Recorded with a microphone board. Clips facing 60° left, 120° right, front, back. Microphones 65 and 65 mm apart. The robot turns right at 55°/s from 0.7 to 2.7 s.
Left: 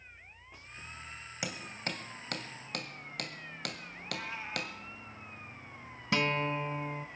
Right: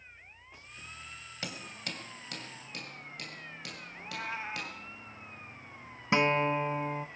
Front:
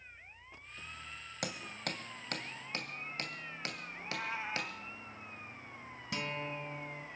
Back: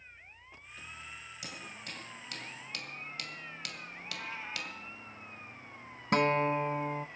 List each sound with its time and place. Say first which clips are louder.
1.4 s hammering: left 3 dB, front 7 dB; 15° right, 2 m; by 4.7 s 55° left, 2 m
3.9 s a cat meowing: right 5 dB, front 3 dB; 65° right, 1.0 m
6.1 s a guitar: right 4 dB, back 13 dB; straight behind, 0.5 m